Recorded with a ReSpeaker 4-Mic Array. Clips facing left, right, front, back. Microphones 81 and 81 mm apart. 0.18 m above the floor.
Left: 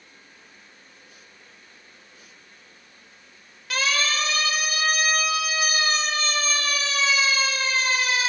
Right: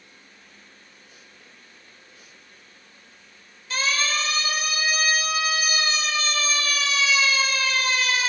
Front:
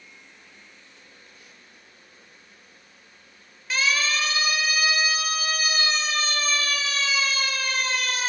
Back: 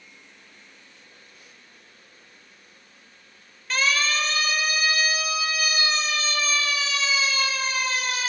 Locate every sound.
3.7 s a siren: 85° left, 5 m; by 8.3 s 25° left, 5.5 m